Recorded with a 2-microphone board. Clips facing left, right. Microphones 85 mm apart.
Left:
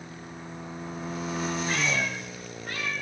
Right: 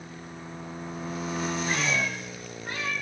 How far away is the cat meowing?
About 8 m.